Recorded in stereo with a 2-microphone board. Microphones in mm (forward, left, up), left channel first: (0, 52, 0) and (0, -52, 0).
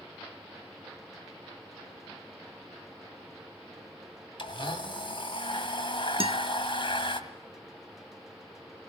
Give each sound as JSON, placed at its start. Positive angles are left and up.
{"t": 4.4, "sound": "a blender", "side_deg": 55, "distance_m": 2.0}
{"t": 6.2, "sound": "a guitar", "side_deg": -65, "distance_m": 0.9}